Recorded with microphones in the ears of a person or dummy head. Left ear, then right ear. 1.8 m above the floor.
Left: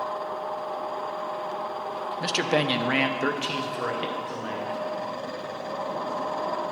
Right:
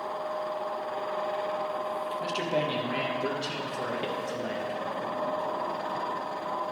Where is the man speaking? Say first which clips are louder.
Left 6 dB; 55° left (ahead or behind), 0.9 m; by 4.8 s 10° left (ahead or behind), 1.5 m.